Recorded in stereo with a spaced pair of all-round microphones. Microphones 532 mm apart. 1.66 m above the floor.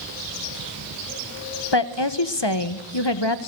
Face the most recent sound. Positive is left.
turn(degrees=50)  # may be behind; listen again after turning